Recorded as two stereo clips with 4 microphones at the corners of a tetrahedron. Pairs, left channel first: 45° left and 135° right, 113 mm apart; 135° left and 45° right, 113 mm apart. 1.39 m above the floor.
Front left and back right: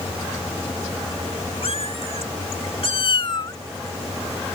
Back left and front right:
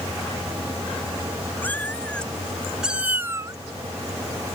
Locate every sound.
1.6 s a cat meowing: 60° left; by 3.6 s straight ahead